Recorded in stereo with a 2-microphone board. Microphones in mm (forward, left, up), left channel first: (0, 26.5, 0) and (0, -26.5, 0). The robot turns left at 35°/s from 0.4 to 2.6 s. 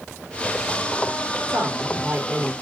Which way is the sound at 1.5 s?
105° right.